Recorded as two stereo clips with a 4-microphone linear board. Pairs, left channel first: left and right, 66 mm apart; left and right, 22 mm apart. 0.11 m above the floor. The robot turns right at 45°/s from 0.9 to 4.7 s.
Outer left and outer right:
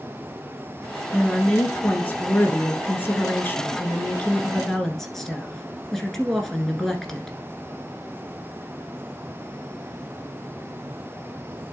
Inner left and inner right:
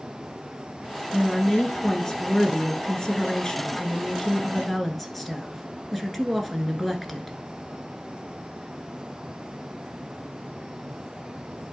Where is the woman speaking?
10° left, 1.4 m; by 7.4 s 170° left, 1.4 m.